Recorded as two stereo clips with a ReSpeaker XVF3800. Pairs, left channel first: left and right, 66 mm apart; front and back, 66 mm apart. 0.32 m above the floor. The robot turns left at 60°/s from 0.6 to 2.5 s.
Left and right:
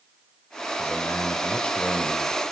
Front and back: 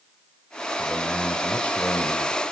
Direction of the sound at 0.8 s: 90° left.